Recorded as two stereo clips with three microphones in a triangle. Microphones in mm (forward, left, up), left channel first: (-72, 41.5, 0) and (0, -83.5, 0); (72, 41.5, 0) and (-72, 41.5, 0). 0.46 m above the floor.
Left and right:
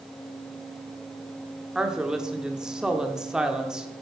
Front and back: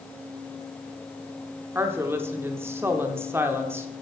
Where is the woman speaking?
140° right, 0.9 m.